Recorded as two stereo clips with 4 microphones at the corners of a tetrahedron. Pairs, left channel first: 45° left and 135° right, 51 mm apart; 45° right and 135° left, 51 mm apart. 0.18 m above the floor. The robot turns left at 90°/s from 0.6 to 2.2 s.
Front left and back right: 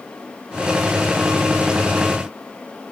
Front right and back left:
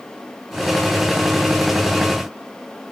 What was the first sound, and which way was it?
Only background noise.